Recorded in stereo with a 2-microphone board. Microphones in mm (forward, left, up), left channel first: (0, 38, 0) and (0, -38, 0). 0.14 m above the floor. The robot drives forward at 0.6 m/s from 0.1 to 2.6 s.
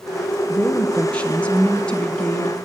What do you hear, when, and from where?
0.5 s a woman speaking: 20° left (ahead or behind), 1.7 m; by 2.6 s 10° left (ahead or behind), 2.5 m